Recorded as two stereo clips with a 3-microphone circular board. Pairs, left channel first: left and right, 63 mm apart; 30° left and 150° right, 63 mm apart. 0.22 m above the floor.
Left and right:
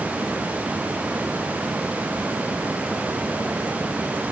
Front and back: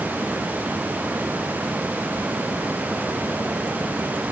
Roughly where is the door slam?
I don't hear a door slam.